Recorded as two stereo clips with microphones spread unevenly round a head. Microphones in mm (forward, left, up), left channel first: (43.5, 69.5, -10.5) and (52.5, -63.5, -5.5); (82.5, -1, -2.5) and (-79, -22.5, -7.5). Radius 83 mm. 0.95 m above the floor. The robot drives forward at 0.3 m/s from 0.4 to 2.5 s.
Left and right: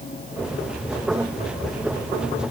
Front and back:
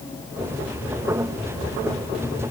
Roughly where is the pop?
No pop in this recording.